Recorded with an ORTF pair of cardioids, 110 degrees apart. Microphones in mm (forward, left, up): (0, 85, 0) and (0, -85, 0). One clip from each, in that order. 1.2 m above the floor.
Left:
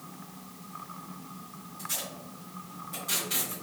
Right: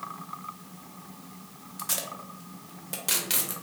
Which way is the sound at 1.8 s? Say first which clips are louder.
Right 3 dB; 65° right.